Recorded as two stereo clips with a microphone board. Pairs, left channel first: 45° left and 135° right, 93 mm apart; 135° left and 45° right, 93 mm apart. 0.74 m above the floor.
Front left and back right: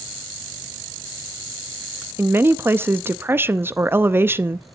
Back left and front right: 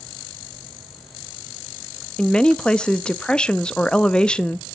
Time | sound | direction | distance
2.2 | a woman speaking | 160° right | 0.5 m